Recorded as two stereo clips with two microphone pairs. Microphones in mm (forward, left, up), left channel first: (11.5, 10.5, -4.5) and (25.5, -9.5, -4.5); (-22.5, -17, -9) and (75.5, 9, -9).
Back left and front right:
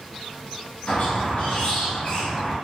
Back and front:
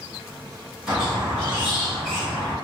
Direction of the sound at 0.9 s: 100° left.